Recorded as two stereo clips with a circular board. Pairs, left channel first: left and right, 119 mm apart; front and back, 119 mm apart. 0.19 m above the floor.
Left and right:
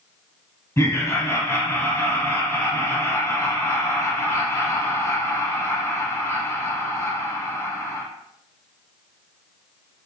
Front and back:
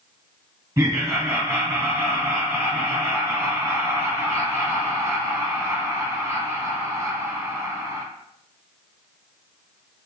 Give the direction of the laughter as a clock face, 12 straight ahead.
8 o'clock.